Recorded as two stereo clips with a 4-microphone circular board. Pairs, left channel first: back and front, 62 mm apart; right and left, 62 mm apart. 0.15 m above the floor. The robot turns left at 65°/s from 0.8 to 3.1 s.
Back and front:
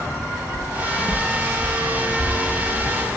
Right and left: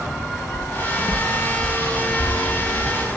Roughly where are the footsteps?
Ahead.